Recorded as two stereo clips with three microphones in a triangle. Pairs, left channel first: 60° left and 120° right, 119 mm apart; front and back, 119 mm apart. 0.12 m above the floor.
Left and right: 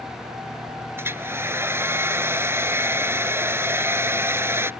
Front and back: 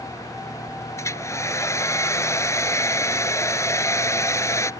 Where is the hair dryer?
55° right.